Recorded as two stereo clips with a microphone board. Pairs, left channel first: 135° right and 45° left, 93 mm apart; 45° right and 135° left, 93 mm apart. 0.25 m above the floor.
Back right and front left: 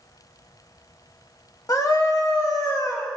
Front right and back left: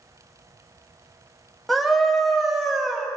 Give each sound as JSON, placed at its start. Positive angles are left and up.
{"t": 1.7, "sound": "a scream", "azimuth_deg": -135, "distance_m": 1.1}